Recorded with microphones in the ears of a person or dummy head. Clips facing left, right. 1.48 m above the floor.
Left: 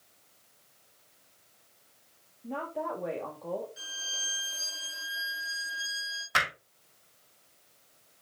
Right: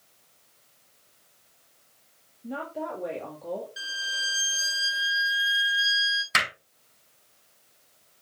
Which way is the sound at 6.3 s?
35° right (ahead or behind).